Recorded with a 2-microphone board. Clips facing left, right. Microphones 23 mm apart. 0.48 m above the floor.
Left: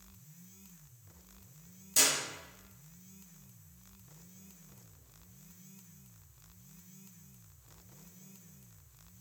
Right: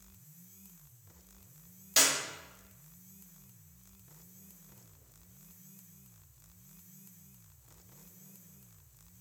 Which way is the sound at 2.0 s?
45° right (ahead or behind).